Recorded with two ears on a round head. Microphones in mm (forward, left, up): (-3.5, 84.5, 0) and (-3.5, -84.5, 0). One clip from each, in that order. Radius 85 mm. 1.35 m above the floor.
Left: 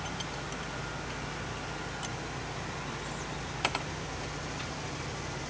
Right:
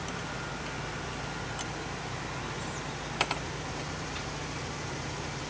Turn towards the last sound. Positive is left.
No sound to turn to.